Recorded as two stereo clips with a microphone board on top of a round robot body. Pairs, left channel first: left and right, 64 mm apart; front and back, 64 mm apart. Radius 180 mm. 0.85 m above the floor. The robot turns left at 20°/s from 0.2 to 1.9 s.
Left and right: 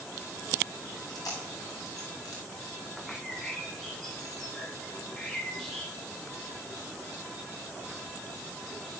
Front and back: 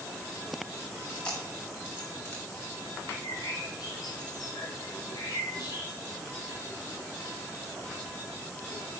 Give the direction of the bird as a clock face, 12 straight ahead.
12 o'clock.